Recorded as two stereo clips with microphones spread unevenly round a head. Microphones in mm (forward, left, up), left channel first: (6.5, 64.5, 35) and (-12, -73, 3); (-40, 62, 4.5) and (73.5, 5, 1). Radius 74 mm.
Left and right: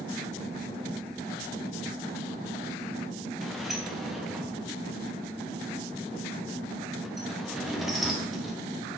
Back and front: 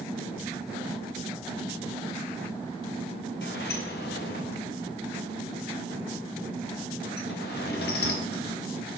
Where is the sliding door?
175° left, 1.0 m.